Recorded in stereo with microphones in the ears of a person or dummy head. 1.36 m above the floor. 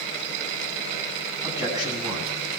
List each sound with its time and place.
1.4 s a man speaking: 25° right (ahead or behind), 9.5 m